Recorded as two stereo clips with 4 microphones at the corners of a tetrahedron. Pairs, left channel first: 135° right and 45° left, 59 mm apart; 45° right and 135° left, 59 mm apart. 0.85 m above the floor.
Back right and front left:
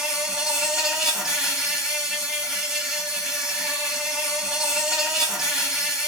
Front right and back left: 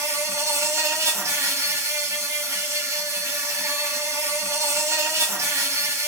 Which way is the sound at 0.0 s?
125° left.